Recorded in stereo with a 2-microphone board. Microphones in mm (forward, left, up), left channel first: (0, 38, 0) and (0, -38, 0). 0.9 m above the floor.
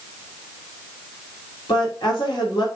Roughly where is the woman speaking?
Left.